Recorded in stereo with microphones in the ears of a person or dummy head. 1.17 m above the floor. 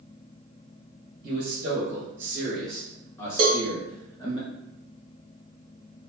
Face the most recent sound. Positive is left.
turn(degrees=-25)  # may be behind; listen again after turning